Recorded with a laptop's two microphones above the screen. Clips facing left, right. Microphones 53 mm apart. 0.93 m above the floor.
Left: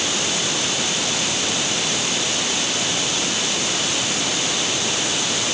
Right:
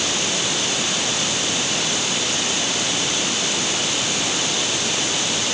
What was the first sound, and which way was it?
Only background noise.